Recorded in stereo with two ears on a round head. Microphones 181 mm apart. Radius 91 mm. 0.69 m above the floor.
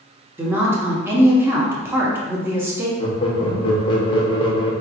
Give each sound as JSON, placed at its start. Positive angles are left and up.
{"t": 0.4, "sound": "a woman speaking", "side_deg": -10, "distance_m": 0.9}
{"t": 3.0, "sound": "laughter", "side_deg": 25, "distance_m": 1.0}